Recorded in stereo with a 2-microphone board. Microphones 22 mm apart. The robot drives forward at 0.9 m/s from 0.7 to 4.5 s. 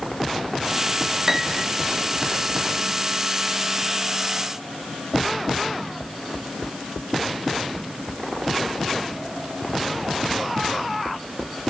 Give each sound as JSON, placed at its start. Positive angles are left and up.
{"t": 1.3, "sound": "a piano", "side_deg": -20, "distance_m": 0.8}